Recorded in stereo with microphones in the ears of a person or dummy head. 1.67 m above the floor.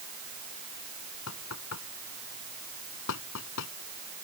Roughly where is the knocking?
Left.